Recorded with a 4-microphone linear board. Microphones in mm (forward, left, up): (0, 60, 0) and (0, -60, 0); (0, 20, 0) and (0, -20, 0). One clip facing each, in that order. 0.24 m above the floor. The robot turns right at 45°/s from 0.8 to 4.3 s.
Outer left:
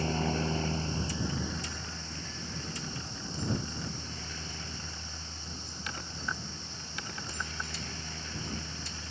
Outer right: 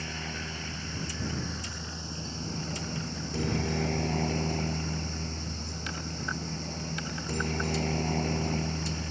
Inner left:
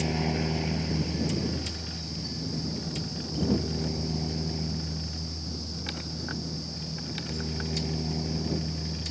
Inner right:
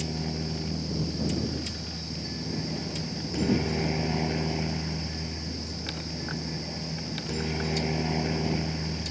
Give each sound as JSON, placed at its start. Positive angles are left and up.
{"t": 0.0, "sound": "a helicopter", "azimuth_deg": 145}